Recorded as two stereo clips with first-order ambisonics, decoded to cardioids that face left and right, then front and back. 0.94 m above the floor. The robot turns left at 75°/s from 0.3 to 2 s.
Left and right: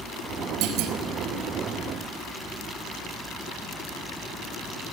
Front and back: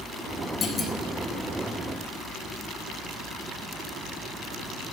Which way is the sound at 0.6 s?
60° right.